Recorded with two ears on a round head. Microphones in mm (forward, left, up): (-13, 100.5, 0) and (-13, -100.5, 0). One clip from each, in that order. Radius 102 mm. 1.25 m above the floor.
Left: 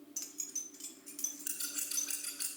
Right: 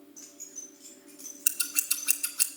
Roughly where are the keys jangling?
Left.